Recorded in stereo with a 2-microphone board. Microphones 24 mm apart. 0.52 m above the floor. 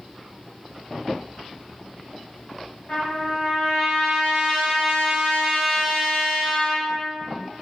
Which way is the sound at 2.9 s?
65° left (ahead or behind).